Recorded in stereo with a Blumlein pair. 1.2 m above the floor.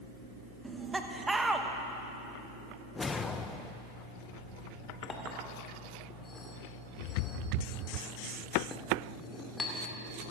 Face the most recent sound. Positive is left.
turn(degrees=15)